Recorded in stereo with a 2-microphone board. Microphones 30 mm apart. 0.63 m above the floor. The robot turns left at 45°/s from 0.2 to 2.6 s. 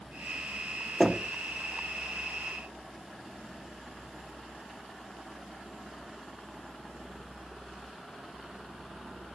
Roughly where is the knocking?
Centre.